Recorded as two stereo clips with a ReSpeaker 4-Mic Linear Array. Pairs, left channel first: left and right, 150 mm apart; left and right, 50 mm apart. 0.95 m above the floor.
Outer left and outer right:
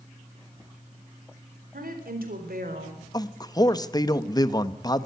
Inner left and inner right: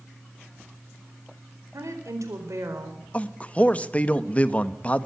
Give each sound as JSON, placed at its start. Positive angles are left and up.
{"t": 1.7, "sound": "a woman speaking", "side_deg": -80, "distance_m": 4.5}
{"t": 3.1, "sound": "a man speaking", "side_deg": 25, "distance_m": 1.1}